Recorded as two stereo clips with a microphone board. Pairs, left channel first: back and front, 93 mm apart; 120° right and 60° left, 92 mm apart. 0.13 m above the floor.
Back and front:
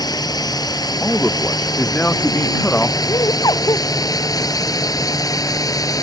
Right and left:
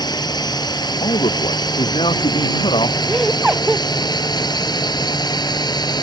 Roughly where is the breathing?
I don't hear breathing.